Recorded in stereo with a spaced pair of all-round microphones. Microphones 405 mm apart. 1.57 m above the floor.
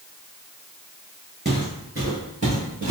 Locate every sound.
1.4 s footsteps: 25° right (ahead or behind), 1.7 m; by 2.9 s 45° right (ahead or behind), 2 m